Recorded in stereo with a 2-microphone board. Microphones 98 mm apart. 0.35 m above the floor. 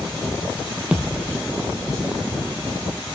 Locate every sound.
0.9 s a thud: 10° right (ahead or behind), 2.0 m